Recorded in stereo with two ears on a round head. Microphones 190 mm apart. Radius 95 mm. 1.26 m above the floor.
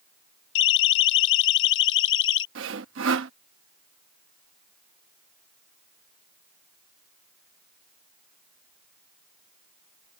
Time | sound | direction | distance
0.6 | a siren | 65° left (ahead or behind) | ?
2.5 | sawing | 65° right (ahead or behind) | ?